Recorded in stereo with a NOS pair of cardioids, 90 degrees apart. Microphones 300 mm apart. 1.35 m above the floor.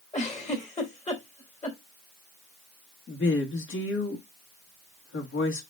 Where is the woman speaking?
45° left, 3 m.